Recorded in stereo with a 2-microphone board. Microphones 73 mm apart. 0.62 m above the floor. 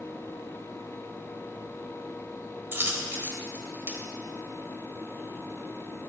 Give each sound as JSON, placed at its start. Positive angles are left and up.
{"t": 2.7, "sound": "a dropped coin", "side_deg": -35, "distance_m": 1.2}